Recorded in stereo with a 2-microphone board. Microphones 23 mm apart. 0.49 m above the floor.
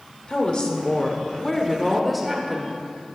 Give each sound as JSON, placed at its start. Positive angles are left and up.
{"t": 0.3, "sound": "a woman speaking", "side_deg": 50, "distance_m": 1.6}